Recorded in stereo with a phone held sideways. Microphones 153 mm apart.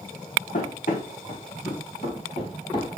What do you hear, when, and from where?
0.5 s running footsteps: 65° left (ahead or behind), 3.5 m; by 3.0 s 25° left (ahead or behind), 2.5 m